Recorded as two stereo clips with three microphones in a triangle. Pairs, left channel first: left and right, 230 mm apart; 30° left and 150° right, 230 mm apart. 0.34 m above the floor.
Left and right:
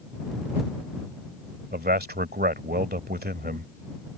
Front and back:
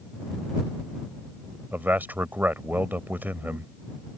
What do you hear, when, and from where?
1.7 s a man speaking: 70° right